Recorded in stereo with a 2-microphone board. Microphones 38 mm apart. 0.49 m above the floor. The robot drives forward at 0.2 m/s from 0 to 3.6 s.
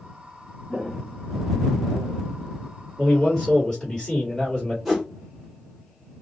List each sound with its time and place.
0.7 s footsteps: centre (ahead or behind), 0.6 m; by 2.2 s 65° left (ahead or behind), 1.1 m
3.0 s a man speaking: 20° left (ahead or behind), 1.6 m
4.8 s a whoosh: centre (ahead or behind), 1.6 m